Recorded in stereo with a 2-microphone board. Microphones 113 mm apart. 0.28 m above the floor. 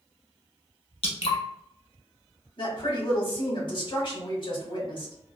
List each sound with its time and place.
1.0 s dripping: 60° left (ahead or behind), 0.8 m
2.6 s a woman speaking: 50° left (ahead or behind), 1.4 m